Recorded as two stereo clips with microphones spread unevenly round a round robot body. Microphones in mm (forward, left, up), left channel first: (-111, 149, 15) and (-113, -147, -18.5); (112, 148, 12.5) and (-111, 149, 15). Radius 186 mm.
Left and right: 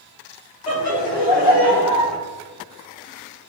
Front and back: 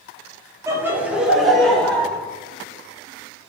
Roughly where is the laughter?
Left.